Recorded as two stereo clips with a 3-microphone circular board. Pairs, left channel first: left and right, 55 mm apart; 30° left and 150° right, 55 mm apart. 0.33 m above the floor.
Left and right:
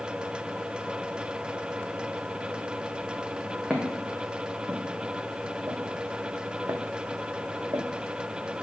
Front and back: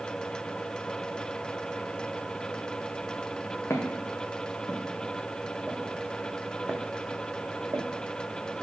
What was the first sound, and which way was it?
Footsteps, 10° right.